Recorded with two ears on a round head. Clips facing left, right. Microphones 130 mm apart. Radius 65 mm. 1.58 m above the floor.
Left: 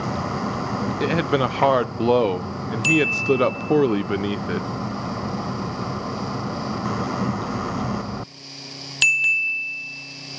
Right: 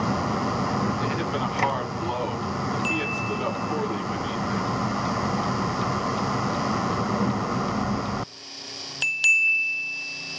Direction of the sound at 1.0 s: 70° left (ahead or behind).